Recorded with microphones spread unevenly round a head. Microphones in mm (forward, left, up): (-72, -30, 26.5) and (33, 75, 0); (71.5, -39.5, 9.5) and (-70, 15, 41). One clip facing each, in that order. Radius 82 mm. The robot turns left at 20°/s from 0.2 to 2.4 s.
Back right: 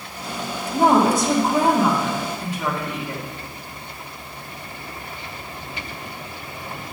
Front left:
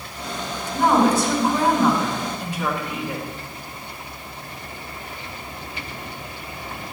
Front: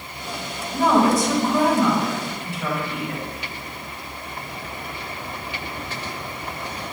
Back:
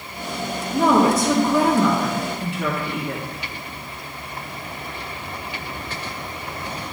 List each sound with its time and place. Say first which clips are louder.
0.7 s a woman speaking: back right 1 dB, back 1 dB; 175° left, 1.8 m; by 3.2 s 140° left, 1.8 m